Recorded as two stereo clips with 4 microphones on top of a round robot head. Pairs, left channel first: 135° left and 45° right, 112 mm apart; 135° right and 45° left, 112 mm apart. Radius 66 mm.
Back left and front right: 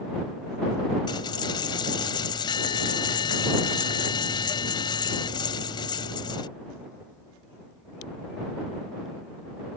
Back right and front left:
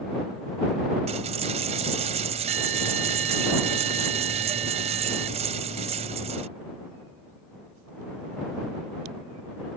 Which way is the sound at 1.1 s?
80° left.